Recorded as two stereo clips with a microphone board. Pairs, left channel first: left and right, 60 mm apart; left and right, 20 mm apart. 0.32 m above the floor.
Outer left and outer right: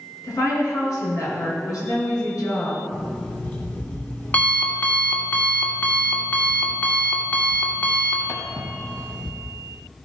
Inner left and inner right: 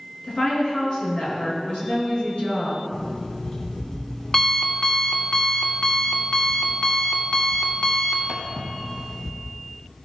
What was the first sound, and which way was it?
A woman speaking, 60° left (ahead or behind).